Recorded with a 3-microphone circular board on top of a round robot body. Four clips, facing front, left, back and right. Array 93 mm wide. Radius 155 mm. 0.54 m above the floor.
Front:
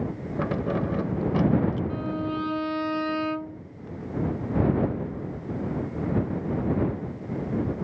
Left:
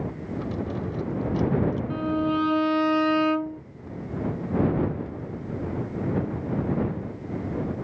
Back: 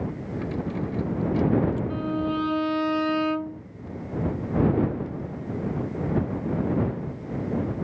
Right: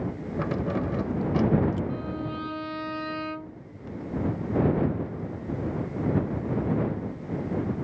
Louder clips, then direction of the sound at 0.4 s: Right 3 dB, front 4 dB; 30° right.